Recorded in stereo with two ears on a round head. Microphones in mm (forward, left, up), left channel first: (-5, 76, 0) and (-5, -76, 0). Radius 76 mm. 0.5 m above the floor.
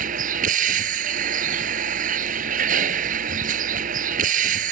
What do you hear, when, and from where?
0.0 s a vehicle: 50° right (ahead or behind)